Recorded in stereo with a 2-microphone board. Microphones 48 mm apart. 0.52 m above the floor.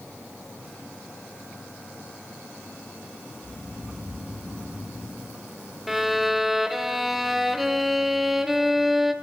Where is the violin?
5° right (ahead or behind), 1.3 m.